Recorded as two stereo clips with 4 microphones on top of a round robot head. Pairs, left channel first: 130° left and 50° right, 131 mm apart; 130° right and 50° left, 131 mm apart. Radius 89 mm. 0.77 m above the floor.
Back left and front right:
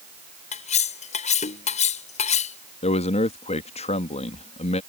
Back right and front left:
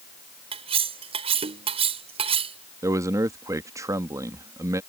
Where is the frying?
I don't hear frying.